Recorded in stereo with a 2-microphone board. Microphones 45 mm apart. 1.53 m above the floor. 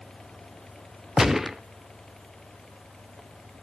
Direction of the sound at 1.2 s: 5° right (ahead or behind).